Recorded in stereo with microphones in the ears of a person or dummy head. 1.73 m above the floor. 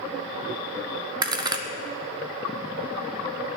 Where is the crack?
20° right (ahead or behind), 0.8 m.